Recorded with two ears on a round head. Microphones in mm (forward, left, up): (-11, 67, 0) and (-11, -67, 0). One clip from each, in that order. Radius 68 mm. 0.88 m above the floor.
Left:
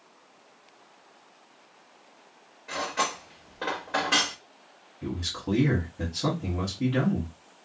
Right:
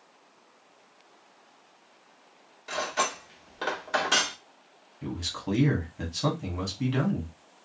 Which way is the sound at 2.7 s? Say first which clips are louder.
Even; 70° right (ahead or behind).